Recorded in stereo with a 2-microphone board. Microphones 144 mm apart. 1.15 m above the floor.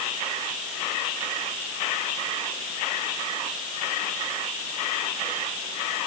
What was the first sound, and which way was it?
Only background noise.